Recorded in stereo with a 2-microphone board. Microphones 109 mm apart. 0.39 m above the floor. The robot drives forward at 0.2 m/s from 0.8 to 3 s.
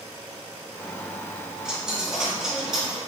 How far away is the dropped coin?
About 0.7 m.